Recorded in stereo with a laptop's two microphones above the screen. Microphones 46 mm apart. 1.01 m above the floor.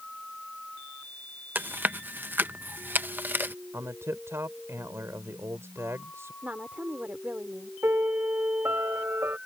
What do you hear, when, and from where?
1.6 s chewing: 45° right (ahead or behind)
3.7 s a man speaking: 75° right (ahead or behind)
6.4 s a woman speaking: 35° right (ahead or behind)
7.8 s a piano: 65° right (ahead or behind)